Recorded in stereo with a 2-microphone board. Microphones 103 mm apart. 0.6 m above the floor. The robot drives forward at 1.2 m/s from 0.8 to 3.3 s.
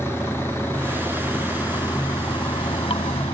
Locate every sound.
0.0 s running water: 30° left (ahead or behind); by 3.3 s 85° left